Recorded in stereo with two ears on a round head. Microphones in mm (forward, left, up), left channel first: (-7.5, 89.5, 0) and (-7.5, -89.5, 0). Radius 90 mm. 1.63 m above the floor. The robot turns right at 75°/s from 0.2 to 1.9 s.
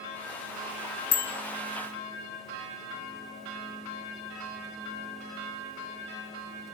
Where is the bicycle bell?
75° left (ahead or behind), 3 m; by 1.3 s 80° left, 3 m.